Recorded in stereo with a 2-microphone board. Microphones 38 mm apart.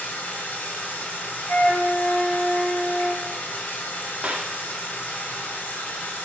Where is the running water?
60° left (ahead or behind), 2 m.